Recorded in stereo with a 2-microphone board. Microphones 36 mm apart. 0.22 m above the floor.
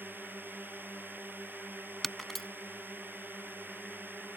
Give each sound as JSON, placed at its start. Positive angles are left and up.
{"t": 0.0, "sound": "a drone", "side_deg": -75}
{"t": 2.0, "sound": "breaking glass", "side_deg": 5}